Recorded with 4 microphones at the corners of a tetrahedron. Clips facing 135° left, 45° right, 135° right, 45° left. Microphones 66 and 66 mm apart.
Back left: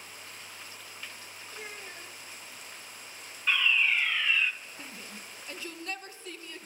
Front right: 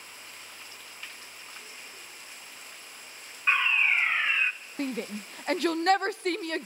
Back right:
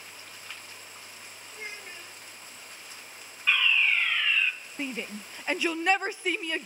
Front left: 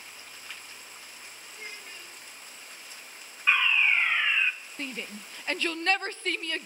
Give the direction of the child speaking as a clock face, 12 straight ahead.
7 o'clock.